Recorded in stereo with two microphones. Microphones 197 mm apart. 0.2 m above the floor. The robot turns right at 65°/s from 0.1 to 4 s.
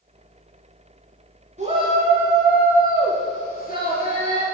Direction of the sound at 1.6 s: 55° right.